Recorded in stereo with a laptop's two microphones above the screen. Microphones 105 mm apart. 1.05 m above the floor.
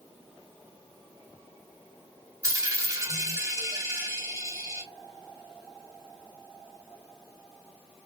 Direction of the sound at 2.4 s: 30° right (ahead or behind).